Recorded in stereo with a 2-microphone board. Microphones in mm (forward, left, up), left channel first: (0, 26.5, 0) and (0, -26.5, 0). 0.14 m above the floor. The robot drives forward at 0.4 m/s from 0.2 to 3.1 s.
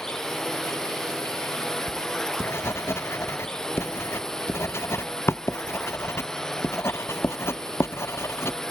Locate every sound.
0.0 s a drone: 10° left (ahead or behind)
1.9 s writing: 50° left (ahead or behind); by 8.7 s 55° left (ahead or behind)